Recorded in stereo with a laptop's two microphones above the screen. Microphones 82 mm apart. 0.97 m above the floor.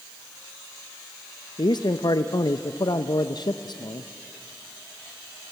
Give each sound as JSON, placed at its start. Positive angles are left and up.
{"t": 1.6, "sound": "a man speaking", "side_deg": 60, "distance_m": 0.6}